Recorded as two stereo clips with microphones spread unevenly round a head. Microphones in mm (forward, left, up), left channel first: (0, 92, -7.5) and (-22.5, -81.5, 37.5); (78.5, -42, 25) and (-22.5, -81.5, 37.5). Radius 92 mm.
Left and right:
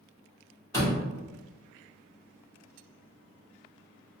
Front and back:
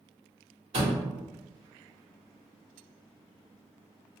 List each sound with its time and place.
0.7 s a door slam: 155° left, 1.8 m